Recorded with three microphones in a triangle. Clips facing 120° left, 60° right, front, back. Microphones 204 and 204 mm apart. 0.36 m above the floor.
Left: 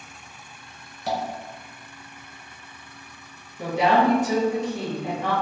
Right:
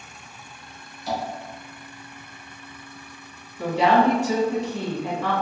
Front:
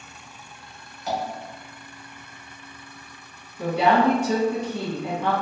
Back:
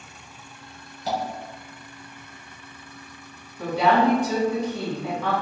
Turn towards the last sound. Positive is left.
turn(degrees=70)